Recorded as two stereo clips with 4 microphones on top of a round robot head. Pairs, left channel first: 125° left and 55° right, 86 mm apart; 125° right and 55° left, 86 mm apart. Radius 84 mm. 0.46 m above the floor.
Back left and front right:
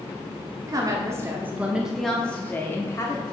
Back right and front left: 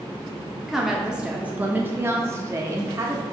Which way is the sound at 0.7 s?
35° right.